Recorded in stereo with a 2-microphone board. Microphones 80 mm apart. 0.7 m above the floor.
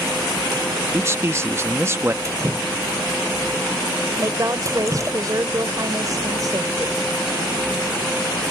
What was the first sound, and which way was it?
A man speaking, 30° right (ahead or behind).